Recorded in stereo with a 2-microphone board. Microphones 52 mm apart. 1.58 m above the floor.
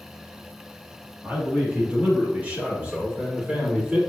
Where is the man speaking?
25° right (ahead or behind), 3 m; by 4.0 s 15° right (ahead or behind), 5.5 m.